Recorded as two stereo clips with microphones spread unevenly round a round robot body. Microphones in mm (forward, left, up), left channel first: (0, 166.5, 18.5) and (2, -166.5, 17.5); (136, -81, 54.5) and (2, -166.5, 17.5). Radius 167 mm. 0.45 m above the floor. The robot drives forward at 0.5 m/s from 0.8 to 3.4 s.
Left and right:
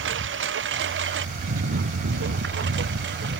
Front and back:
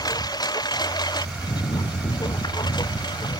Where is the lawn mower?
35° right; by 3.4 s 30° right.